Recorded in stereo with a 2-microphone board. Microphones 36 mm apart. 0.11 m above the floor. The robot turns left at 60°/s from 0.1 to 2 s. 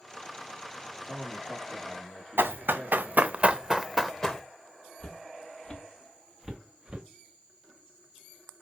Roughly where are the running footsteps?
Right.